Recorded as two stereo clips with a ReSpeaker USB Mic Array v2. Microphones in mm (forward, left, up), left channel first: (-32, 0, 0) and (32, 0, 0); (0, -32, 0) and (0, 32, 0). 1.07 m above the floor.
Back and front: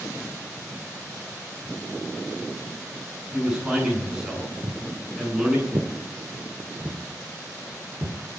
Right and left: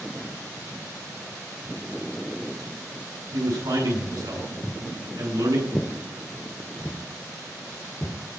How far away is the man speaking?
About 9.5 m.